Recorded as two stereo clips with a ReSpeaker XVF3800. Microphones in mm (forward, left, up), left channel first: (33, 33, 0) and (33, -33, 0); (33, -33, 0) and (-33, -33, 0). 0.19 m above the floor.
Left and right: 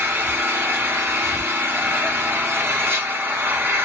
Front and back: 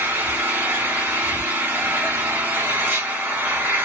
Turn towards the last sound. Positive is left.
turn(degrees=-130)